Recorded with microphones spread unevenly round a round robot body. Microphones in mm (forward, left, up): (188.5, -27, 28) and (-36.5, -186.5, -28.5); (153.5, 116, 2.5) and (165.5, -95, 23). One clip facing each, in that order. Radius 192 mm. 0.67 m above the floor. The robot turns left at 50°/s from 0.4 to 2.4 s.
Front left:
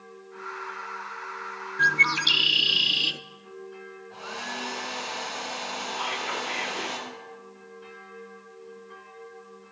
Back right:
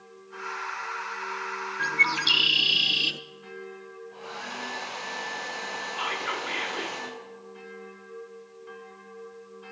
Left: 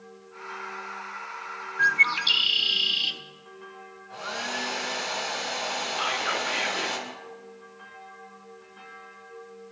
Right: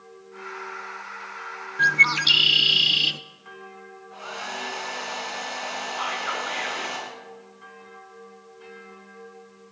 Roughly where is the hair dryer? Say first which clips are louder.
Front left 1 dB, left 3 dB; left.